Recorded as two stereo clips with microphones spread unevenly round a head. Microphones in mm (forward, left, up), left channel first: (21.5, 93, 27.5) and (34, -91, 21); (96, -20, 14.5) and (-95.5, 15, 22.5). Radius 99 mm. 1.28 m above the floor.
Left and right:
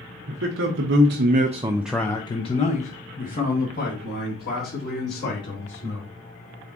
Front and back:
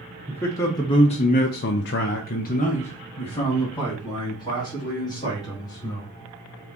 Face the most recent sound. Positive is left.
turn(degrees=60)